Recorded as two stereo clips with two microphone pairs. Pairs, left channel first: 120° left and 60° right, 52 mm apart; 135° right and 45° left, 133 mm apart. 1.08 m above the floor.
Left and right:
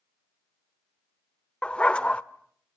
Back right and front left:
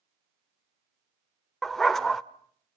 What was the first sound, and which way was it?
A dog barking, 145° left.